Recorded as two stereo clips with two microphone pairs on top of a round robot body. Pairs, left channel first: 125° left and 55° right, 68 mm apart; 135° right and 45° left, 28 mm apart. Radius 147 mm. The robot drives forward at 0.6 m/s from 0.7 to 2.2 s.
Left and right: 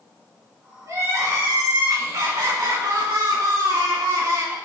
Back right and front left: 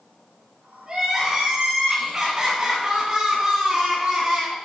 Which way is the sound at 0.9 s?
20° right.